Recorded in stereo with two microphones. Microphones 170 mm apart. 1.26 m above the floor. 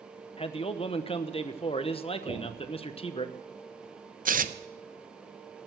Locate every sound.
0.4 s a man speaking: 35° left (ahead or behind), 0.9 m
2.3 s knocking: 15° left (ahead or behind), 7.5 m
4.2 s tearing paper: 55° right (ahead or behind), 0.6 m